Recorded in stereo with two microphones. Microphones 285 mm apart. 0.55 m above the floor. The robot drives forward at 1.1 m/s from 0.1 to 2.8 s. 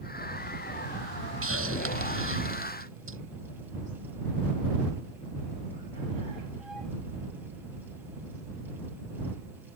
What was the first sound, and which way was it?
A hiss, 50° right (ahead or behind).